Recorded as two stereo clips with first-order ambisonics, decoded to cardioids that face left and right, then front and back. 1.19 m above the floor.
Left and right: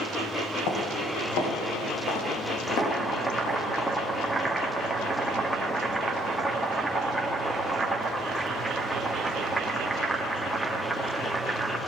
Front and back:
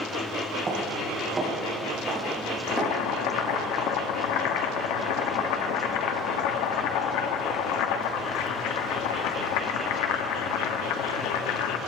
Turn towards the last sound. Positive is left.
turn(degrees=-5)